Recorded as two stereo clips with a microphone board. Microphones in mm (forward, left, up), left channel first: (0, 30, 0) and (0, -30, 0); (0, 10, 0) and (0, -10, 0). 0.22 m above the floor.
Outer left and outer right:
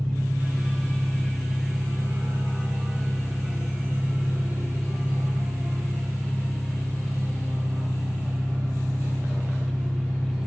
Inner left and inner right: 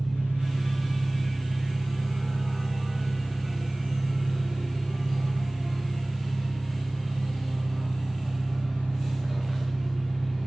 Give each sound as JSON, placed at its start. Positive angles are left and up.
{"t": 0.0, "sound": "an engine running", "side_deg": -55, "distance_m": 2.5}